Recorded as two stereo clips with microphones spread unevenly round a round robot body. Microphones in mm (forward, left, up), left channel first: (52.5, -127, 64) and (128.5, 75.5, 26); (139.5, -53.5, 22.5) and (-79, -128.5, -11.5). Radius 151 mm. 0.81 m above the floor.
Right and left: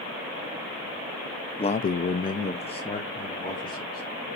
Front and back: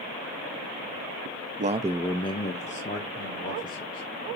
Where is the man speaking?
Straight behind, 0.6 m; by 4.0 s 40° right, 3 m.